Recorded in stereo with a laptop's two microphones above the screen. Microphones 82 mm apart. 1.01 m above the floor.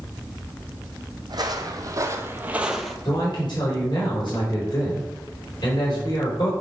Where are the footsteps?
55° right (ahead or behind), 1.8 m; by 3.0 s 5° left (ahead or behind), 1.0 m.